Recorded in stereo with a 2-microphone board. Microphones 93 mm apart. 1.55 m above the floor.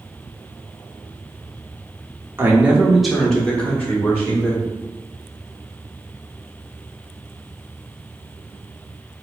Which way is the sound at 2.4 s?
25° right (ahead or behind).